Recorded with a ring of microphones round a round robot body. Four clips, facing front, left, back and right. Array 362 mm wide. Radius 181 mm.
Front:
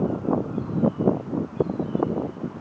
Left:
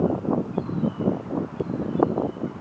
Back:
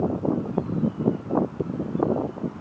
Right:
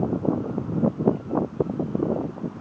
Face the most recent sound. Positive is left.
No sound to turn to.